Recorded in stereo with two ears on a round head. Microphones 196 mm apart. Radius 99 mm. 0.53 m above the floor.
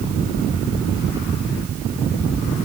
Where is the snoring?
No snoring in this recording.